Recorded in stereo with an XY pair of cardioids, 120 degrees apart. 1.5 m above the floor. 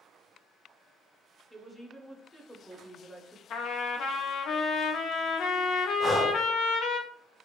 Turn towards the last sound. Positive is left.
turn(degrees=20)